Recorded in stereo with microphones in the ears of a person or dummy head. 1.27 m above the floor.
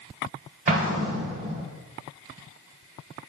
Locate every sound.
0.7 s an explosion: 40° right (ahead or behind), 1.3 m